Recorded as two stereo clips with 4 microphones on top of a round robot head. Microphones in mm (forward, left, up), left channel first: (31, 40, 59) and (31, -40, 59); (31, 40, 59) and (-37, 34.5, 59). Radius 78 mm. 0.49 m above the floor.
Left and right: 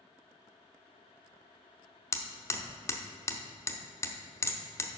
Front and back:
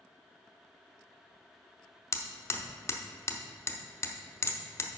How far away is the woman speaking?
No woman speaking in this recording.